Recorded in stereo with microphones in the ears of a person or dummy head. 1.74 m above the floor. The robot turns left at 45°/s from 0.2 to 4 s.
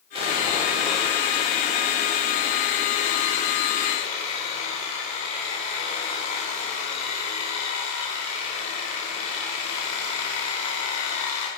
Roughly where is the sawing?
Behind right.